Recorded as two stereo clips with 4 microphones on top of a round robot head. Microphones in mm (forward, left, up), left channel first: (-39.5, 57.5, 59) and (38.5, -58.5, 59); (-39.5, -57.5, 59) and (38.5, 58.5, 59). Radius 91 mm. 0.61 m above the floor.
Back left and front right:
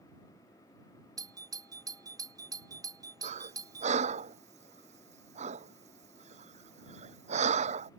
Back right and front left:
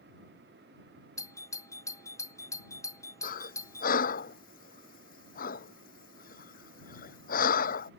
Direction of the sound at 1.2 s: 85° right.